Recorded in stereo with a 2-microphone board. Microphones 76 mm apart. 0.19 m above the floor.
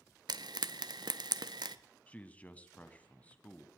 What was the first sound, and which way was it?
Frying, 70° right (ahead or behind).